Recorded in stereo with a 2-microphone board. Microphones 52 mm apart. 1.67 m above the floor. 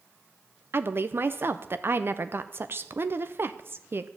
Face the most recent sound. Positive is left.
turn(degrees=-45)  # may be behind; listen again after turning